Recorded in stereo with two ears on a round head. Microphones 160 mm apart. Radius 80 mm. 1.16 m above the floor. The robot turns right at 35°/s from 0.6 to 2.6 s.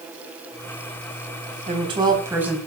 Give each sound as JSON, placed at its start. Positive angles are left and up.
{"t": 1.7, "sound": "a woman speaking", "azimuth_deg": -35, "distance_m": 3.5}